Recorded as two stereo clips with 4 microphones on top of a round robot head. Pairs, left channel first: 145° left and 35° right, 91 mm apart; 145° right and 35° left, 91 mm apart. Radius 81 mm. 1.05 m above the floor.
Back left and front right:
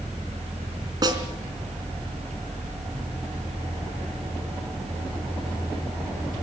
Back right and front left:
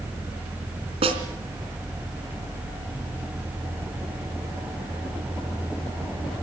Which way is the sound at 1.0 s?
10° left.